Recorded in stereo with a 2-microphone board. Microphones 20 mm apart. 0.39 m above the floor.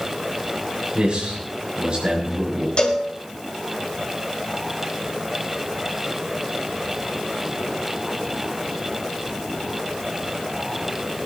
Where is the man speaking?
60° right (ahead or behind), 6 m.